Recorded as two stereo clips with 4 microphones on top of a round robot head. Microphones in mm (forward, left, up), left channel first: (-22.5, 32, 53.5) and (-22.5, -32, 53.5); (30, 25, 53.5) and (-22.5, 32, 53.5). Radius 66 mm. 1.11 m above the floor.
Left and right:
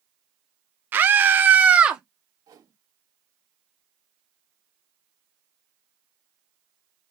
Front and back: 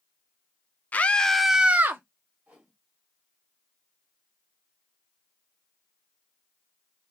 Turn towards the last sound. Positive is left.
turn(degrees=-115)